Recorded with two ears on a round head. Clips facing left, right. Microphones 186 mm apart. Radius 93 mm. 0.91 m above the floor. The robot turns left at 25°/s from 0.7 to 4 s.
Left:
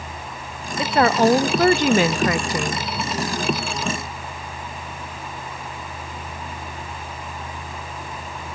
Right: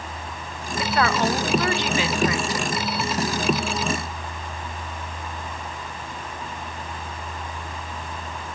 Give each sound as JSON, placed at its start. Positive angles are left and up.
{"t": 0.8, "sound": "a woman speaking", "azimuth_deg": 150, "distance_m": 0.6}